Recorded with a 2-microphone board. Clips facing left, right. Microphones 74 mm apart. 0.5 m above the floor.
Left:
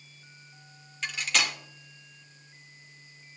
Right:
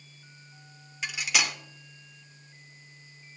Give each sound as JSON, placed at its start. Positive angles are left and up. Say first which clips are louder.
{"t": 1.0, "sound": "cutlery clinking", "louder": "even", "side_deg": -10, "distance_m": 0.7}